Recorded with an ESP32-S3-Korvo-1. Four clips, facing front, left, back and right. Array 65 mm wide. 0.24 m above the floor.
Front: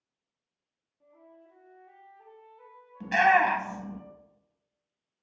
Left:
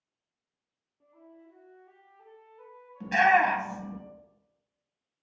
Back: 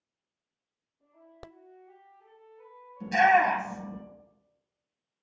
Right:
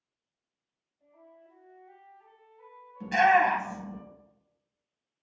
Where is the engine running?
No engine running in this recording.